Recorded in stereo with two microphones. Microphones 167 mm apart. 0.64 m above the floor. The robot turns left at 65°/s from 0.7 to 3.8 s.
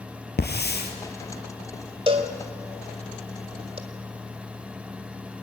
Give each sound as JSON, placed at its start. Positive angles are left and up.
{"t": 0.4, "sound": "a hiss", "side_deg": 85, "distance_m": 3.0}
{"t": 2.1, "sound": "a cowbell", "side_deg": -30, "distance_m": 1.9}